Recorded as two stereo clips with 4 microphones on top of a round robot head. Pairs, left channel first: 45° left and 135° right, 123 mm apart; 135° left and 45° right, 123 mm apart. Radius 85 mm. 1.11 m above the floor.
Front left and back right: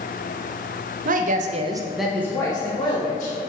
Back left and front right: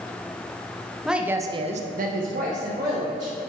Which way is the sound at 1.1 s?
130° right.